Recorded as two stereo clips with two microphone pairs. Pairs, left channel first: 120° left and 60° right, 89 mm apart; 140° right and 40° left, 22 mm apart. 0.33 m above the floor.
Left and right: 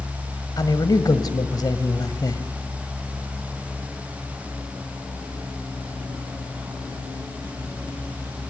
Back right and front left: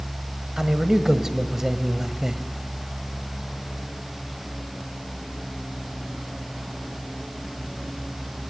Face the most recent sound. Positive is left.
turn(degrees=105)